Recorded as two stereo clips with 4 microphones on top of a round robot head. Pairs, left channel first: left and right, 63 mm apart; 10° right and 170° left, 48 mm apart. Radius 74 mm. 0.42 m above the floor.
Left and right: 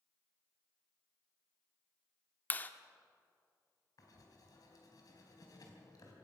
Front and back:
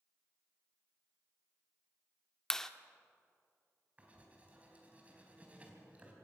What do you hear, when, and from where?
2.5 s a clap: 65° left, 1.1 m
4.0 s writing: 110° left, 4 m